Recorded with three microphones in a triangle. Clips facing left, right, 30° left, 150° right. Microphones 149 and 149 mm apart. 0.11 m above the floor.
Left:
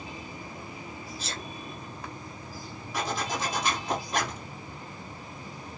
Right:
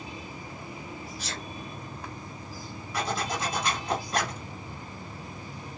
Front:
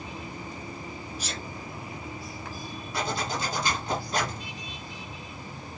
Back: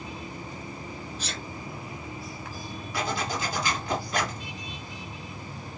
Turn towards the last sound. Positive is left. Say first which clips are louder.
# right 1 dB, even
turn(degrees=20)